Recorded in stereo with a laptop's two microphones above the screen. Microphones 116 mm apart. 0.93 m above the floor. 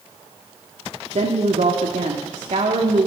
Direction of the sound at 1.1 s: 75° right (ahead or behind).